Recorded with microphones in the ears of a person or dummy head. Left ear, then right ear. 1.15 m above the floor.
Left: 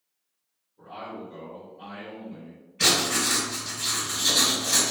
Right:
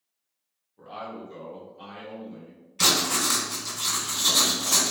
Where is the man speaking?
40° right (ahead or behind), 1.0 m; by 2.6 s 5° left (ahead or behind), 1.1 m.